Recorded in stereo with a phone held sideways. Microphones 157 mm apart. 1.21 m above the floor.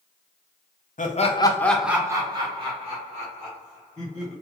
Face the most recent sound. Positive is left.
turn(degrees=-50)  # may be behind; listen again after turning